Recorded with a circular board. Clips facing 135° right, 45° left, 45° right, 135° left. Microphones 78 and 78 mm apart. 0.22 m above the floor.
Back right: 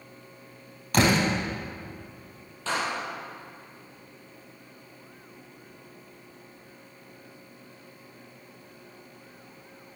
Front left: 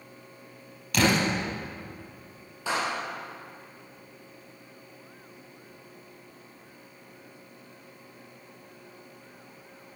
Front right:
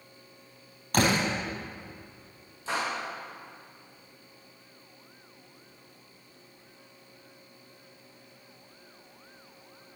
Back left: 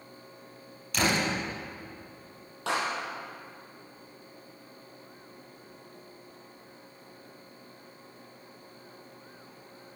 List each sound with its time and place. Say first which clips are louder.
0.9 s a door slam: back right 1 dB, front right 2 dB; 85° right, 4.5 m
2.7 s a clap: even, back left 1 dB; 125° left, 4.5 m